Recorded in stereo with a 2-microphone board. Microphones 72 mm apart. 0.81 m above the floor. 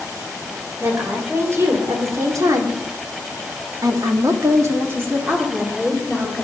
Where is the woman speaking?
35° right (ahead or behind), 3.5 m; by 6.4 s 15° right (ahead or behind), 3 m.